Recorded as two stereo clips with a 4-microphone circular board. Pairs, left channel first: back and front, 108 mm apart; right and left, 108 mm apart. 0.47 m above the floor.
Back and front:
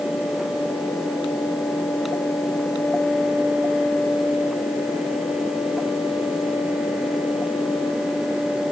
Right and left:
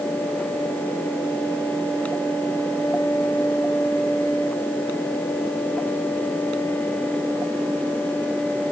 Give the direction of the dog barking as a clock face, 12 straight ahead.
I don't hear a dog barking.